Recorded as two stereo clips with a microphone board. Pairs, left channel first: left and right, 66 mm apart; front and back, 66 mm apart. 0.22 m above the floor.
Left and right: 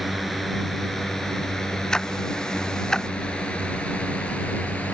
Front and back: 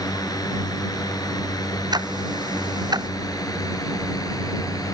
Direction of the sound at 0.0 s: Straight ahead.